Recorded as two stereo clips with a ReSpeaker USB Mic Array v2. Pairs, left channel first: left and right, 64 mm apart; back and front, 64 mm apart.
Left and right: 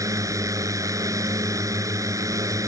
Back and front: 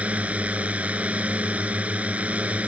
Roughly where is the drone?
Ahead right.